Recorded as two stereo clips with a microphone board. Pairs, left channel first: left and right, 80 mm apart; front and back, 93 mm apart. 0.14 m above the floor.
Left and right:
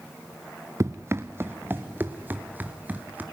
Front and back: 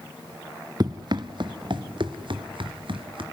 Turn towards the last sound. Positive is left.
turn(degrees=-160)